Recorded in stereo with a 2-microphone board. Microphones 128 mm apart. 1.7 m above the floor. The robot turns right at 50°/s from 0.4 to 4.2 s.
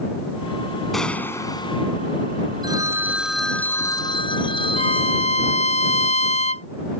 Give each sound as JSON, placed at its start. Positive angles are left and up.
{"t": 0.9, "sound": "a gunshot", "azimuth_deg": 0}
{"t": 2.6, "sound": "a phone ringing", "azimuth_deg": -35}
{"t": 4.8, "sound": "a violin", "side_deg": 65}